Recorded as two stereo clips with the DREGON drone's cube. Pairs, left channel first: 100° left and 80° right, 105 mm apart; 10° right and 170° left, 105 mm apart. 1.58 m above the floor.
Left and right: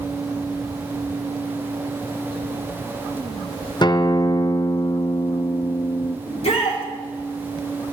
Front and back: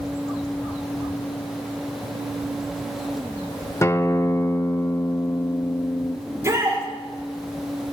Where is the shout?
110° left, 3.5 m.